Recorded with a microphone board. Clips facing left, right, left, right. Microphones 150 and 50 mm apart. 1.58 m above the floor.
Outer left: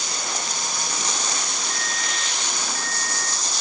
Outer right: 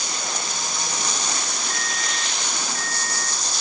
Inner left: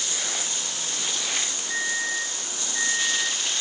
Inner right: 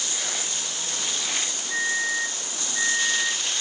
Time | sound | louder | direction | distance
1.7 | a microwave | outer right 1 dB, inner right 3 dB | 35° left (ahead or behind) | 1.8 m